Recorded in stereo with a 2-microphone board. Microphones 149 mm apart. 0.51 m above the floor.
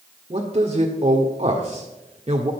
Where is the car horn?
No car horn in this recording.